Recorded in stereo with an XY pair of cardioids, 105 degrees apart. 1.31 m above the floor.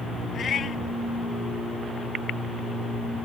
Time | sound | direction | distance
0.3 | a cat meowing | 45° left | ?